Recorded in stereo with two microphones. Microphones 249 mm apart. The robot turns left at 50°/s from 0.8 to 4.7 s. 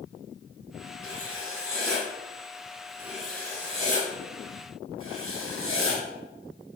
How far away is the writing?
About 3 m.